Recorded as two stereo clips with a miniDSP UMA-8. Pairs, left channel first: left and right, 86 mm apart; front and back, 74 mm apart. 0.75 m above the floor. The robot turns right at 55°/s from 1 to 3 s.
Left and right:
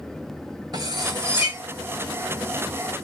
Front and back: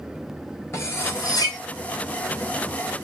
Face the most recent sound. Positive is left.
turn(degrees=55)